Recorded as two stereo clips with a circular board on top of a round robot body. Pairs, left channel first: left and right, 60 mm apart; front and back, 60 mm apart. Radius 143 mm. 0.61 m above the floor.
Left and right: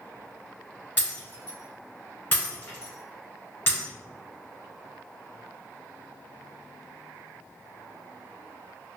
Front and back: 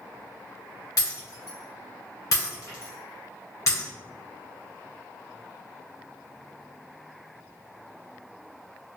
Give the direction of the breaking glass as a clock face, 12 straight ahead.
11 o'clock.